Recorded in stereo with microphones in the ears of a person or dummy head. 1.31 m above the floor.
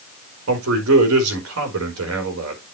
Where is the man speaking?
75° right (ahead or behind), 4.5 m.